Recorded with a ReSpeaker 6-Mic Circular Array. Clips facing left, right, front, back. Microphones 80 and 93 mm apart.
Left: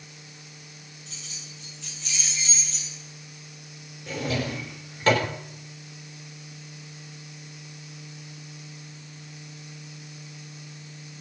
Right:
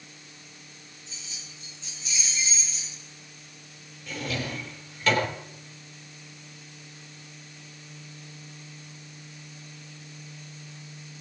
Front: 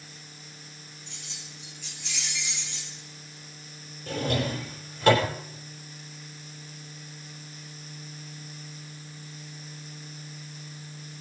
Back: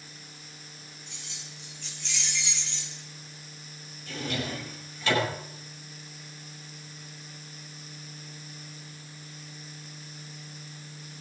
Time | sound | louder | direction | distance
1.1 | keys jangling | left 1 dB, front 1 dB | 90° left | 5 m
4.1 | a drawer | left 4 dB, front 5 dB | 40° left | 5 m